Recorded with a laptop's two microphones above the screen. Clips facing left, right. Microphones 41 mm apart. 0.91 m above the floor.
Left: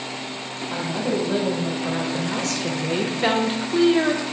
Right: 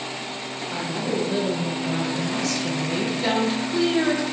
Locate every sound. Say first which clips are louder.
0.7 s a woman speaking: left 2 dB; 40° left (ahead or behind), 1.9 m; by 4.2 s 15° left (ahead or behind), 0.6 m